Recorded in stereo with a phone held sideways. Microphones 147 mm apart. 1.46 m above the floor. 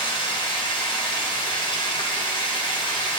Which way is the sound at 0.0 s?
35° left (ahead or behind).